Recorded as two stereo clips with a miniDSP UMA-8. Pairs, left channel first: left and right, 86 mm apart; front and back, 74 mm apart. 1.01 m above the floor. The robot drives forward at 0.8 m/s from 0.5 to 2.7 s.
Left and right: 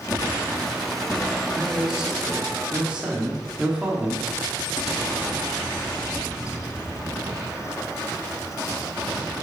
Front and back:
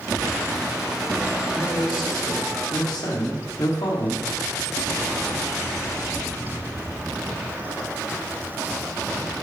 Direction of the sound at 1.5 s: 10° right.